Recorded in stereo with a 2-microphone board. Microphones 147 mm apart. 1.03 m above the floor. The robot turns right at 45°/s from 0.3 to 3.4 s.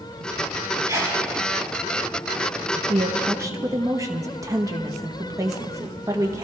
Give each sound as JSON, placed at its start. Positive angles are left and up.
{"t": 0.9, "sound": "a sneeze", "side_deg": -25, "distance_m": 3.0}
{"t": 2.9, "sound": "a woman speaking", "side_deg": -40, "distance_m": 0.9}